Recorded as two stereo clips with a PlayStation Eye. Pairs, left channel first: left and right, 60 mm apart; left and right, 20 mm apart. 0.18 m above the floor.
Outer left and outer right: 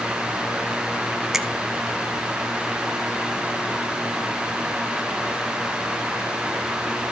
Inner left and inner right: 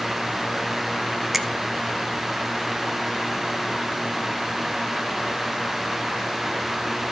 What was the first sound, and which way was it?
A finger snap, 5° right (ahead or behind).